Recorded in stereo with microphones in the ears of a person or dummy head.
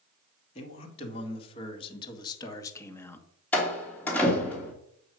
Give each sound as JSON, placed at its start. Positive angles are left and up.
{"t": 0.6, "sound": "a man speaking", "side_deg": 40, "distance_m": 2.5}
{"t": 3.5, "sound": "a door slam", "side_deg": 15, "distance_m": 2.5}